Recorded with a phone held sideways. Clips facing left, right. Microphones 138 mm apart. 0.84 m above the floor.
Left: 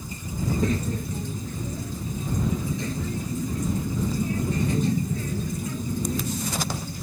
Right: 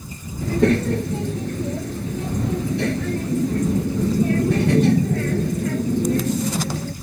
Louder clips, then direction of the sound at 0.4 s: Right 8 dB; 75° right (ahead or behind).